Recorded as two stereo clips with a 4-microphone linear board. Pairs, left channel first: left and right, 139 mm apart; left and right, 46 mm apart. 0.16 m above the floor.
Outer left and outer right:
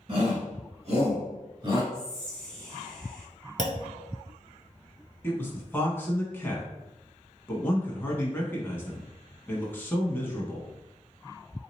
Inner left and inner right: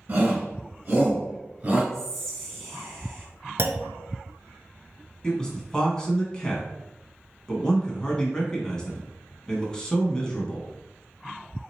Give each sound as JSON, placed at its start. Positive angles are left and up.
{"t": 0.1, "sound": "a shout", "side_deg": -40, "distance_m": 1.7}
{"t": 1.9, "sound": "whispering", "side_deg": 5, "distance_m": 1.3}
{"t": 3.6, "sound": "a clunk", "side_deg": -65, "distance_m": 0.5}
{"t": 5.2, "sound": "a man speaking", "side_deg": 15, "distance_m": 1.1}